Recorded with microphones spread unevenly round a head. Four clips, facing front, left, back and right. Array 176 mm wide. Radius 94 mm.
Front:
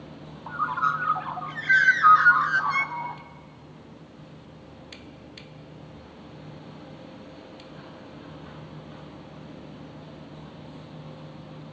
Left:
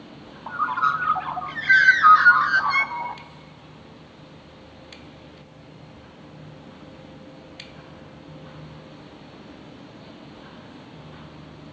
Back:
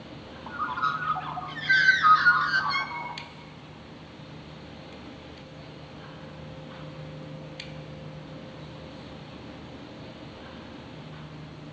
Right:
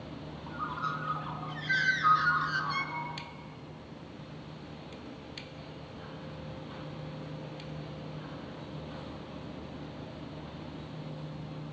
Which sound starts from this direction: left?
A bird, at 0.5 s.